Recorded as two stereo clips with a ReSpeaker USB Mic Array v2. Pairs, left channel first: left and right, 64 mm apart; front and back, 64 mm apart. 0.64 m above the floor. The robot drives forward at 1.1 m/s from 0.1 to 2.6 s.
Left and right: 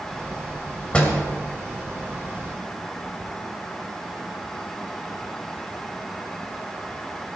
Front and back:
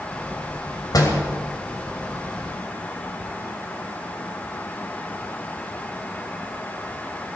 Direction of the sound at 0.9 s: 15° left.